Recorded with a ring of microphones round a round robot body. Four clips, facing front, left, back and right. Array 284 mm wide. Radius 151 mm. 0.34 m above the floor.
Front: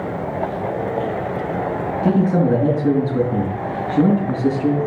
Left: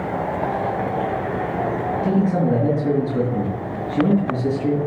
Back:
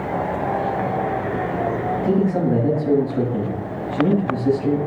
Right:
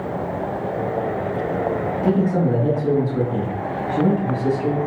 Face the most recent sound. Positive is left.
turn(degrees=5)